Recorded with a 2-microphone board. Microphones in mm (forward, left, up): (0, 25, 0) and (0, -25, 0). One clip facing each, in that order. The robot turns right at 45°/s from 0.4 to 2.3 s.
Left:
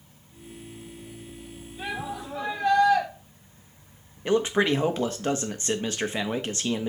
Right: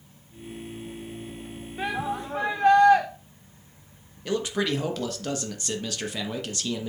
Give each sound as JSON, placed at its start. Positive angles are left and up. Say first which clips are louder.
{"t": 1.8, "sound": "a shout", "louder": "right 4 dB", "side_deg": -70, "distance_m": 2.5}
{"t": 4.2, "sound": "a man speaking", "louder": "left 4 dB", "side_deg": 30, "distance_m": 1.1}